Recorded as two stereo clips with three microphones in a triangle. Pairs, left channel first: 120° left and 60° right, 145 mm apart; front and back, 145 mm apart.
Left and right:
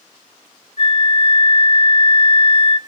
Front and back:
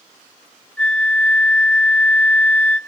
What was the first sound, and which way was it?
A flute, 85° left.